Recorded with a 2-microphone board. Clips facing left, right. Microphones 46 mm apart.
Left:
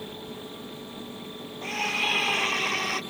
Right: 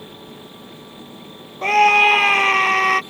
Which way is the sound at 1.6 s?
70° right (ahead or behind).